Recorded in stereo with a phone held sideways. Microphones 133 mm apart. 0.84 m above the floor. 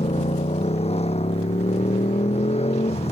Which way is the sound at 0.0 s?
50° left (ahead or behind).